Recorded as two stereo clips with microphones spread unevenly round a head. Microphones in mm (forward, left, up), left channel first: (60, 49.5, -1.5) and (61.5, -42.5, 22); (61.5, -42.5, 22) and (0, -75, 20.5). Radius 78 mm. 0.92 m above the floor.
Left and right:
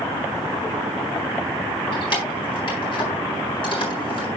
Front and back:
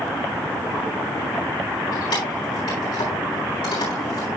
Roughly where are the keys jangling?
Ahead left.